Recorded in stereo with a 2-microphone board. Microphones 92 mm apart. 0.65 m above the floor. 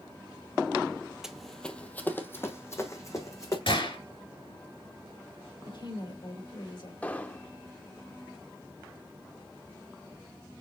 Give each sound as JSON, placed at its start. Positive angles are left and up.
{"t": 1.2, "sound": "running footsteps", "side_deg": -5, "distance_m": 0.7}
{"t": 3.7, "sound": "a gunshot", "side_deg": 75, "distance_m": 2.5}
{"t": 5.7, "sound": "a woman speaking", "side_deg": 65, "distance_m": 2.0}
{"t": 7.0, "sound": "an explosion", "side_deg": 20, "distance_m": 0.6}